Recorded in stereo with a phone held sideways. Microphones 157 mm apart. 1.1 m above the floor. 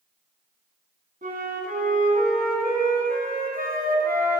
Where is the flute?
65° right (ahead or behind), 2.5 m.